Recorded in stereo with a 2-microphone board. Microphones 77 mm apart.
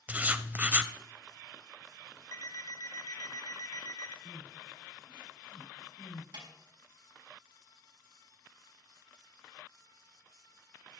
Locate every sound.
0.1 s writing: 20° right (ahead or behind), 0.6 m
2.3 s an alarm clock: 55° left (ahead or behind), 2 m
4.2 s crying: 70° left (ahead or behind), 8.5 m
6.3 s a snare drum: 85° right, 4.5 m